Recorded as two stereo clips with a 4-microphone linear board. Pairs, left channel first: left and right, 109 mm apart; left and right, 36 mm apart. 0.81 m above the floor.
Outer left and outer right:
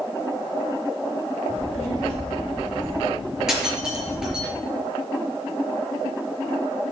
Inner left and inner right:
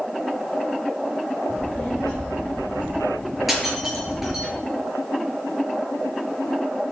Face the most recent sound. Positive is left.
turn(degrees=-5)  # may be behind; listen again after turning